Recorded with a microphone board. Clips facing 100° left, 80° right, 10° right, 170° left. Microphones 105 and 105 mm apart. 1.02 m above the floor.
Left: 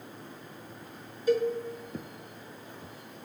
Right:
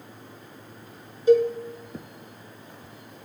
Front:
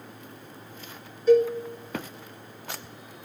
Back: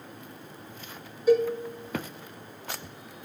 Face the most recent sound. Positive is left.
turn(degrees=-120)